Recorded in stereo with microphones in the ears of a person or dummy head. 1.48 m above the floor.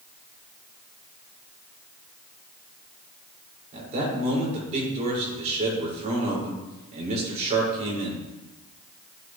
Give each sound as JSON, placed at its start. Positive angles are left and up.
{"t": 3.7, "sound": "a man speaking", "side_deg": -35, "distance_m": 5.5}